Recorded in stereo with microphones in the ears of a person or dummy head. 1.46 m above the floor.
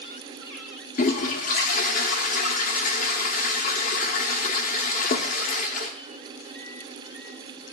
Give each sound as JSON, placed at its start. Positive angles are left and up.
{"t": 1.0, "sound": "a toilet flushing", "side_deg": 45, "distance_m": 0.9}